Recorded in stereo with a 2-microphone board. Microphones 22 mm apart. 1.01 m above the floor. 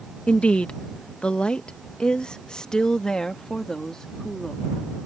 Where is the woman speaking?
60° left (ahead or behind); by 4.6 s 20° left (ahead or behind).